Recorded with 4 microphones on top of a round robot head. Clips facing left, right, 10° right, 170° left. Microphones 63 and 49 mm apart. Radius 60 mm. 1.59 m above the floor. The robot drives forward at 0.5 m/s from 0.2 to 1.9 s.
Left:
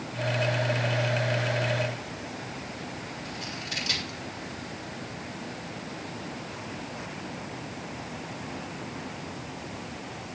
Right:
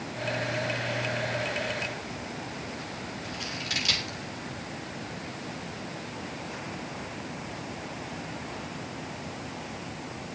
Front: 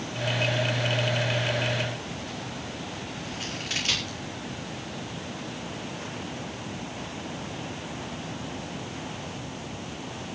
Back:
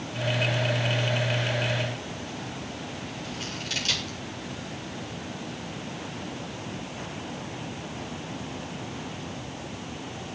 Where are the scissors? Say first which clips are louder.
Right 1 dB, front 1 dB; 80° right, 4.5 m.